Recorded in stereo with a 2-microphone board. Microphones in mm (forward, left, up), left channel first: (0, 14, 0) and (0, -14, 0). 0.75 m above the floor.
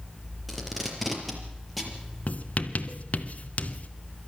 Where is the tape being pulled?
Centre (ahead or behind), 4.5 m.